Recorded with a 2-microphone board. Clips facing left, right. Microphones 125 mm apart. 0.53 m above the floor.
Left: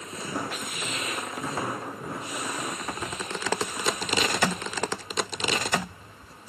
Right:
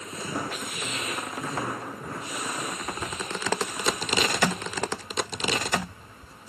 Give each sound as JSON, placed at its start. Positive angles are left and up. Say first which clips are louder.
{"t": 0.2, "sound": "footsteps", "louder": "even", "side_deg": 0}
{"t": 2.8, "sound": "a bird", "louder": "even", "side_deg": 10}